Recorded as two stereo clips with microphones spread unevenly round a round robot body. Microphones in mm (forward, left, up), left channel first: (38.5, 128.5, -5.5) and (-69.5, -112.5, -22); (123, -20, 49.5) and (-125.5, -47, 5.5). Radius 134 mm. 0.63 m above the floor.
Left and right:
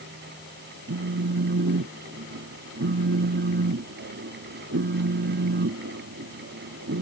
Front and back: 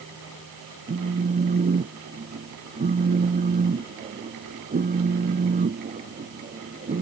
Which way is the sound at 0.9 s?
135° right.